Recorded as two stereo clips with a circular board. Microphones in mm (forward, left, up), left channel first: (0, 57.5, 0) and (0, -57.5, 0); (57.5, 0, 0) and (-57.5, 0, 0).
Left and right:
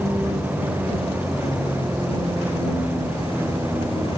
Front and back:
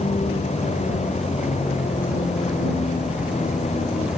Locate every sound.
0.0 s a vehicle: 15° right